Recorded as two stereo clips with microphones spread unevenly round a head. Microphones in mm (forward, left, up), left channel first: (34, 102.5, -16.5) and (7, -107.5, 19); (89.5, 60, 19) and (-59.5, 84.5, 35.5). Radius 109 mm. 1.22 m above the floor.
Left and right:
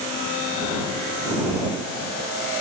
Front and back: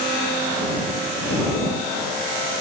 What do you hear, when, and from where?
Only background noise.